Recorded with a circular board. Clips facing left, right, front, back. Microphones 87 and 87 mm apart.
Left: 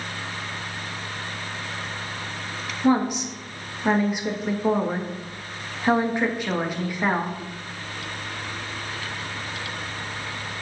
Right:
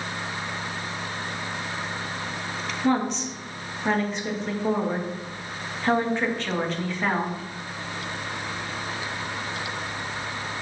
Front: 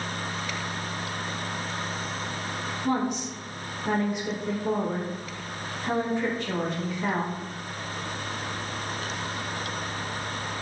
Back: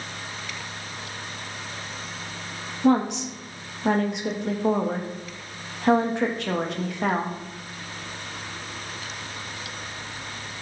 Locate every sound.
2.8 s a woman speaking: 170° left, 1.7 m